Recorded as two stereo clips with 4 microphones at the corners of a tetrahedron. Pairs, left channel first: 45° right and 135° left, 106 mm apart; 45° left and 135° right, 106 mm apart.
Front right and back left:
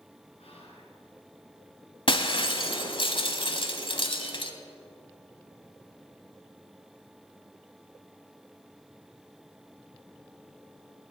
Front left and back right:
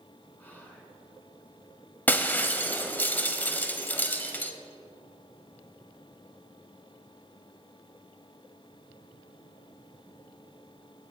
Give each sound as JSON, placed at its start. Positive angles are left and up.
{"t": 0.4, "sound": "whispering", "azimuth_deg": -30, "distance_m": 3.0}
{"t": 2.1, "sound": "breaking glass", "azimuth_deg": -25, "distance_m": 0.9}